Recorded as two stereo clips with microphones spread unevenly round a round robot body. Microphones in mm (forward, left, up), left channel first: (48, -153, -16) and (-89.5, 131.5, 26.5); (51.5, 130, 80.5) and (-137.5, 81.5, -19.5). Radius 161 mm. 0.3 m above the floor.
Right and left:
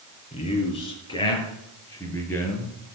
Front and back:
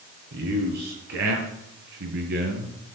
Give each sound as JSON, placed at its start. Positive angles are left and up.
{"t": 0.3, "sound": "a man speaking", "azimuth_deg": -135, "distance_m": 5.5}